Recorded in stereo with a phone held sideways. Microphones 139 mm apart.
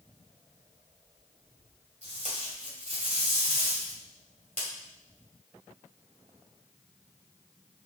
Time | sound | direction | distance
2.0 | tape being pulled | 55° right (ahead or behind) | 2 m